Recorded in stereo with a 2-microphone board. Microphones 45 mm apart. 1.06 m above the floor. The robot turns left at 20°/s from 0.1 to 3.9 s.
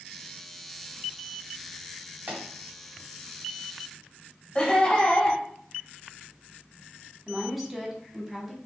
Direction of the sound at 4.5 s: 25° left (ahead or behind).